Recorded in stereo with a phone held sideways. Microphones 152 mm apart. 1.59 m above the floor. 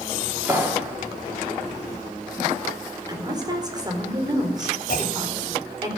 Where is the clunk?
75° left (ahead or behind), 3 m.